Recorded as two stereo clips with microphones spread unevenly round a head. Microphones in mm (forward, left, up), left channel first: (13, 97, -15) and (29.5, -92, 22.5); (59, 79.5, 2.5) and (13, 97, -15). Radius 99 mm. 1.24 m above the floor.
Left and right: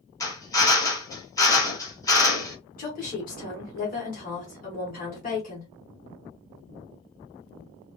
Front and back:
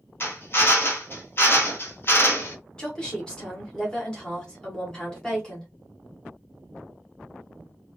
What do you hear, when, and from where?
0.2 s a drill: 30° left, 1.1 m
2.8 s a woman speaking: 60° left, 1.2 m